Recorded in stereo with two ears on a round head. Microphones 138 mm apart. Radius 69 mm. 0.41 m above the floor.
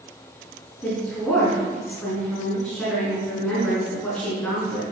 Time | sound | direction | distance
0.8 | a woman speaking | 10° left (ahead or behind) | 4.5 m